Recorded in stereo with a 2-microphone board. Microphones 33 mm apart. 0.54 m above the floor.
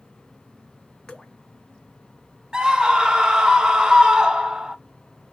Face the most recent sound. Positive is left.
turn(degrees=-25)  # may be behind; listen again after turning